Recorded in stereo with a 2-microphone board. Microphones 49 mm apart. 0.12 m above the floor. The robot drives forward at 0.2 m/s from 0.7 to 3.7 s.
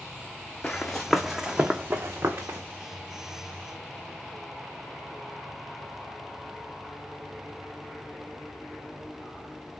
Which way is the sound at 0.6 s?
25° left (ahead or behind).